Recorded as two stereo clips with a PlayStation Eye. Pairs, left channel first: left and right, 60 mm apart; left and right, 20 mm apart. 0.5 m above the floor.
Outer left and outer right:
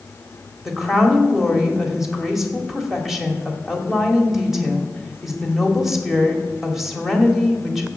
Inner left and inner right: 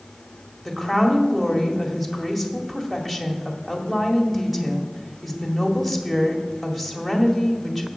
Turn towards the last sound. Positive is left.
turn(degrees=-5)  # may be behind; listen again after turning